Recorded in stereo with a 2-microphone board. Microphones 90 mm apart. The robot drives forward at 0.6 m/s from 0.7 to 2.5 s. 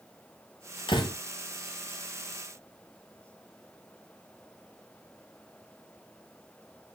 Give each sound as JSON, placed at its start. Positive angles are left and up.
{"t": 0.9, "sound": "a door slam", "side_deg": 60, "distance_m": 3.5}